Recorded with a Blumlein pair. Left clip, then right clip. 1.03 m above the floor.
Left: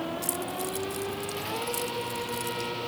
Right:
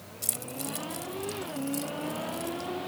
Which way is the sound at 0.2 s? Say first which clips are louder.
Left 5 dB; 10° right.